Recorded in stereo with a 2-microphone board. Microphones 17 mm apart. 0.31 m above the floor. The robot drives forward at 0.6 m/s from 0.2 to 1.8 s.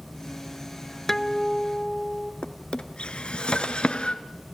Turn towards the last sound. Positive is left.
turn(degrees=80)